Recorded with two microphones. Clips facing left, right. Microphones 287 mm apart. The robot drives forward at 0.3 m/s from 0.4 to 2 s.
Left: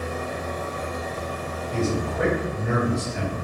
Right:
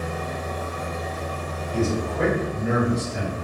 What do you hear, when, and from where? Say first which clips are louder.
0.0 s an engine running: even; 40° right (ahead or behind), 0.9 m; by 3.4 s 25° right (ahead or behind), 1.3 m
1.7 s a man speaking: right 1 dB; 15° right (ahead or behind), 1.8 m